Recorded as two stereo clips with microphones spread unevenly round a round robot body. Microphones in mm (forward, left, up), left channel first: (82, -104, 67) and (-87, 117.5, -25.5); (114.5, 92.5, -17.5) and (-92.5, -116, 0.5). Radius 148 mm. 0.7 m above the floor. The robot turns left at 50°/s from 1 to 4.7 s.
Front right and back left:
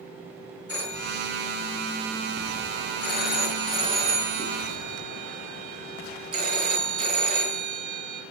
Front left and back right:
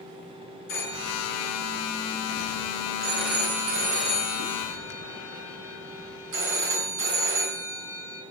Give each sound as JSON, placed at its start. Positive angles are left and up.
{"t": 0.7, "sound": "a phone ringing", "azimuth_deg": 25, "distance_m": 5.0}